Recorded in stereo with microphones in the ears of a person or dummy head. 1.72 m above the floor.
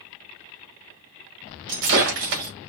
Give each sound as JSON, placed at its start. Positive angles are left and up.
{"t": 1.7, "sound": "breaking glass", "side_deg": -65, "distance_m": 3.0}